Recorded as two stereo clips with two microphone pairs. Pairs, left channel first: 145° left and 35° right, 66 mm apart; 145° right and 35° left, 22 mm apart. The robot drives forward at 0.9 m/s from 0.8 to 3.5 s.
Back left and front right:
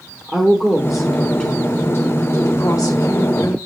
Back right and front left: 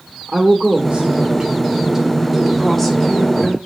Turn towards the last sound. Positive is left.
turn(degrees=150)